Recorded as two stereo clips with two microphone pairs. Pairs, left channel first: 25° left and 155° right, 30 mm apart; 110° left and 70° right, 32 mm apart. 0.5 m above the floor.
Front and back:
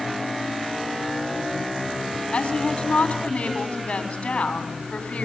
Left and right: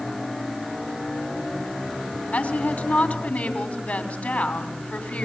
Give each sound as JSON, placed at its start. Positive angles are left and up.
{"t": 2.3, "sound": "a woman speaking", "azimuth_deg": 75, "distance_m": 4.5}